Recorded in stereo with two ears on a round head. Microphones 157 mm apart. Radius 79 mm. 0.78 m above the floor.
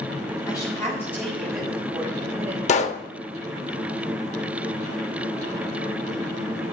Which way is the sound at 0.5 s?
20° left (ahead or behind).